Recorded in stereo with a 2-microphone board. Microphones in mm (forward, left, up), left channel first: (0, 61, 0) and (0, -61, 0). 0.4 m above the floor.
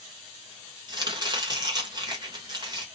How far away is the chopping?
About 1.3 m.